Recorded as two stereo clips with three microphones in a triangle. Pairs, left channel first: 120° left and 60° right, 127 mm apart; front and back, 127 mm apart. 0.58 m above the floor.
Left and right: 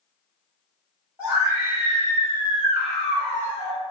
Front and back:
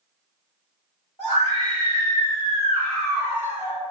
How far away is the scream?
About 1.5 m.